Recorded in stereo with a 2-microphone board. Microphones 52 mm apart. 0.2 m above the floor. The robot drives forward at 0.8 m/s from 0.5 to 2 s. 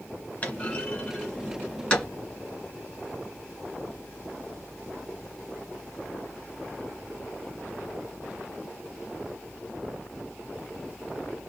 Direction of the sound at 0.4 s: 25° left (ahead or behind).